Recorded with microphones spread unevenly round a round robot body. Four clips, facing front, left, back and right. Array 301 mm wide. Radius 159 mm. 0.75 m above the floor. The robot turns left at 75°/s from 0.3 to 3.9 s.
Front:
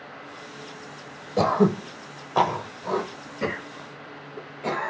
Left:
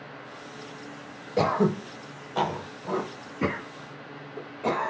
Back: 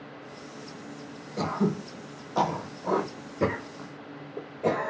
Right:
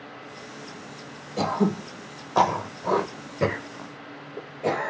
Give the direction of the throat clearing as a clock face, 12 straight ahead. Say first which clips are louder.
Left 1 dB, front 7 dB; 11 o'clock.